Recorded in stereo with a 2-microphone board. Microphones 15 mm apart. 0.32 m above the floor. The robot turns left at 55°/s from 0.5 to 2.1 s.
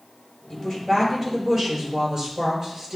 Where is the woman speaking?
40° left, 5.5 m; by 3.0 s 45° right, 5.5 m.